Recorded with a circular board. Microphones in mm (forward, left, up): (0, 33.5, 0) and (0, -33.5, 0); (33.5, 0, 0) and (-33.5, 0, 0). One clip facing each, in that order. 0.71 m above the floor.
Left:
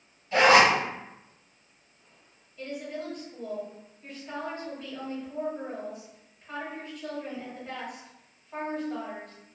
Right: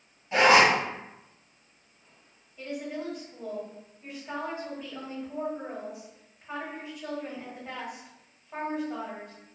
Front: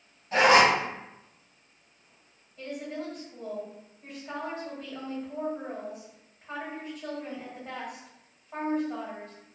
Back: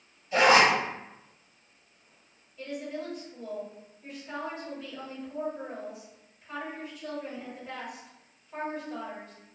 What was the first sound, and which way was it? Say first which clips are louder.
A zipper: left 1 dB, front 1 dB; 30° right.